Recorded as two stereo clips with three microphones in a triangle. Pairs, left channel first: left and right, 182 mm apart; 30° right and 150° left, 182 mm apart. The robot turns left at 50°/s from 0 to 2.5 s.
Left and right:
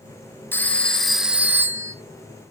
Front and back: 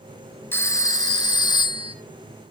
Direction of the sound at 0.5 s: 30° left.